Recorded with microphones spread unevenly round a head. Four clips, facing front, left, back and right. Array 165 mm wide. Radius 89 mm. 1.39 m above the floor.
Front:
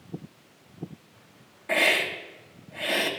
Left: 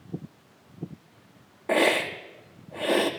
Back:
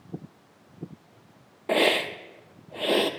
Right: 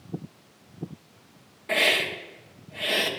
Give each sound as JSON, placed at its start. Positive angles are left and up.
{"t": 1.7, "sound": "a hiss", "azimuth_deg": 130, "distance_m": 0.5}